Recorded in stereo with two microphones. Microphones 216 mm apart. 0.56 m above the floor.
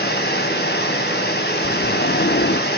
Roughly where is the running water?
Left.